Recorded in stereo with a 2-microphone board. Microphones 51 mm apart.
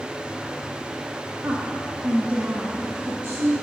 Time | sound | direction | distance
1.4 | a woman speaking | 30° right (ahead or behind) | 1.2 m